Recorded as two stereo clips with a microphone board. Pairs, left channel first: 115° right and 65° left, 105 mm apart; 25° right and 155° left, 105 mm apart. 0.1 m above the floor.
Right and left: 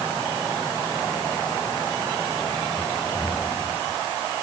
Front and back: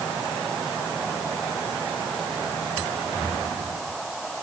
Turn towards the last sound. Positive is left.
No sound to turn to.